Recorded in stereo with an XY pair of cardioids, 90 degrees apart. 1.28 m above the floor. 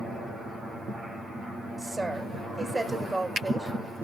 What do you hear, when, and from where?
1.8 s a woman speaking: 25° right, 5 m